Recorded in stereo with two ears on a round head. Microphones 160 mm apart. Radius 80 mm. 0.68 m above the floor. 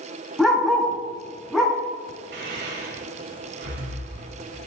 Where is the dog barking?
Centre (ahead or behind), 3 m.